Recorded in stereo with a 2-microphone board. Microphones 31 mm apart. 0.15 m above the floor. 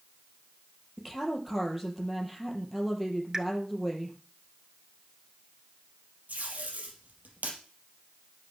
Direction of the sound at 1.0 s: 5° right (ahead or behind).